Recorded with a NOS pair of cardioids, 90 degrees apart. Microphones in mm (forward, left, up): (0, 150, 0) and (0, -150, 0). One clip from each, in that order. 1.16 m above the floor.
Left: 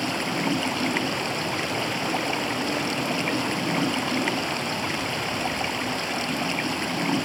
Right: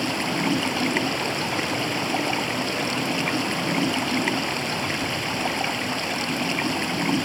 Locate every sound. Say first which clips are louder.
0.0 s running water: right 1 dB; 15° right